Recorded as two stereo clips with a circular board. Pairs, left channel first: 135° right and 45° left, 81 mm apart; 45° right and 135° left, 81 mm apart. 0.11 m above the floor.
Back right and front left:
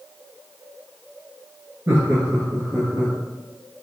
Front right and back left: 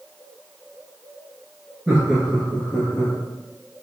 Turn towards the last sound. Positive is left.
turn(degrees=25)